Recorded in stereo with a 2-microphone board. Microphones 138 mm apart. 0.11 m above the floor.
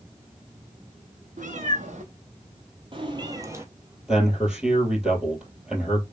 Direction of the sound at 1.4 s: 70° right (ahead or behind).